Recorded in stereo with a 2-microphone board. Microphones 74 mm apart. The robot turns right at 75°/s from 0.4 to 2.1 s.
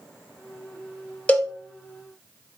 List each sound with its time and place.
1.3 s a cowbell: 20° left (ahead or behind), 0.6 m; by 1.5 s 35° left (ahead or behind), 0.6 m